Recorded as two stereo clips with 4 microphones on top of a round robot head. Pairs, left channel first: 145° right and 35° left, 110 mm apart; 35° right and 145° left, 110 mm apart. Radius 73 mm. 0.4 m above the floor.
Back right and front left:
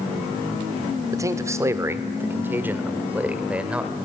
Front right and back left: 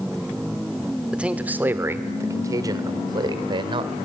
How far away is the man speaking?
About 1.7 m.